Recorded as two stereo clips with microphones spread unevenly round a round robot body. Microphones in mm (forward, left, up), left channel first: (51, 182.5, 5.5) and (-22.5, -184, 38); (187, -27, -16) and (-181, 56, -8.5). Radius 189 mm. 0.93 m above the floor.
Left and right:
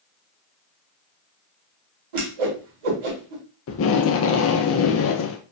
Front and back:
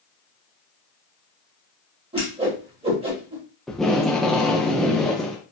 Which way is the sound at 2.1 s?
115° right.